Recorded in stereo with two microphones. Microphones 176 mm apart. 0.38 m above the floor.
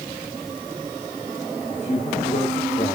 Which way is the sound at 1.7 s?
40° left (ahead or behind).